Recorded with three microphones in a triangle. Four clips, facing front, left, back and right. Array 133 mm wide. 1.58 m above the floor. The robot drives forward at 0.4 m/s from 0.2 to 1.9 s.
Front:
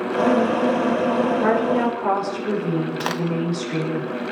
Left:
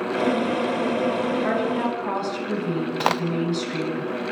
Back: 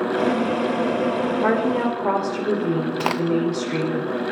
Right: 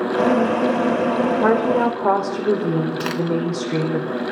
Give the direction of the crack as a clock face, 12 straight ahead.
8 o'clock.